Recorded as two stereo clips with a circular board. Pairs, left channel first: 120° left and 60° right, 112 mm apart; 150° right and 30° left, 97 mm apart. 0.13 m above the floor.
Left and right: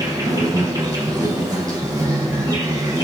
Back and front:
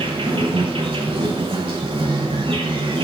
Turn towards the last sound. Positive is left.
turn(degrees=0)